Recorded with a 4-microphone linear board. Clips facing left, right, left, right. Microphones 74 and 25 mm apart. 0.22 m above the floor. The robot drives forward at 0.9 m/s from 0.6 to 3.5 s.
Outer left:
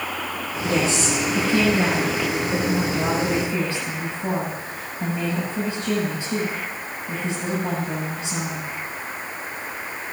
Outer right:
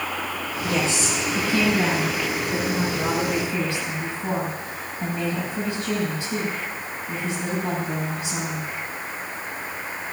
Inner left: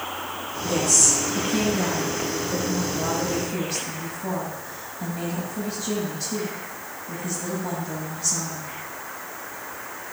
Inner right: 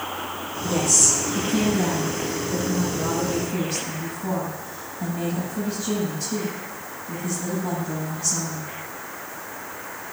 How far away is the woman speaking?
About 7 m.